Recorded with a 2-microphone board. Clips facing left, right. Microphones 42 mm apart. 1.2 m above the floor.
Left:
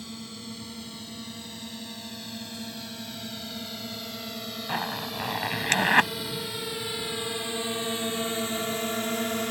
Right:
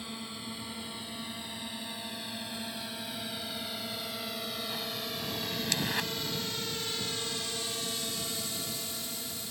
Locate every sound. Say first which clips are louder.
0.0 s a drone: left 1 dB; 20° right (ahead or behind); by 9.5 s 65° left (ahead or behind)
4.7 s a zipper: left 6 dB; 55° left (ahead or behind)